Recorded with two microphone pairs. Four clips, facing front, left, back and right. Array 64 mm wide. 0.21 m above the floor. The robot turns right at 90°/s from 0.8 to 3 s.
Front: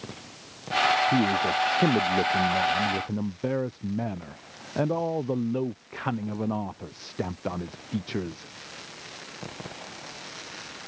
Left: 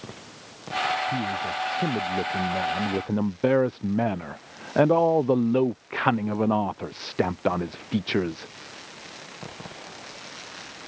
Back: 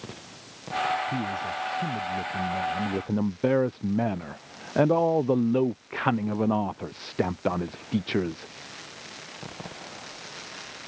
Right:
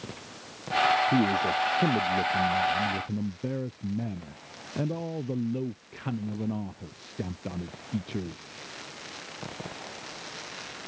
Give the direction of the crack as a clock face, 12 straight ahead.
No crack in this recording.